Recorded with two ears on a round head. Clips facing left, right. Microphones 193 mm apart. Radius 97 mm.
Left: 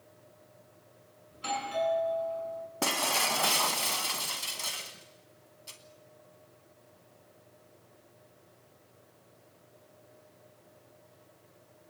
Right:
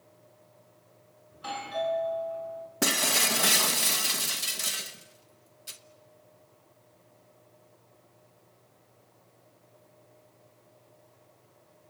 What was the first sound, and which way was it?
A doorbell, 30° left (ahead or behind).